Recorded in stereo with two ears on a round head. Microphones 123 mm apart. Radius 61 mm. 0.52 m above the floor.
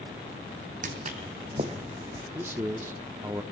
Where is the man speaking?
15° right (ahead or behind), 0.6 m.